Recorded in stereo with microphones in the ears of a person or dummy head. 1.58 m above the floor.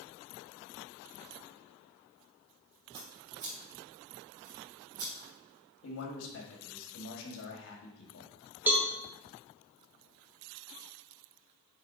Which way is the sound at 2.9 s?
40° right (ahead or behind).